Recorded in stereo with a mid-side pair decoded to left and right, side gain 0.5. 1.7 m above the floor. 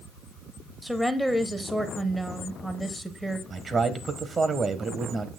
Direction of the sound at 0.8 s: Straight ahead.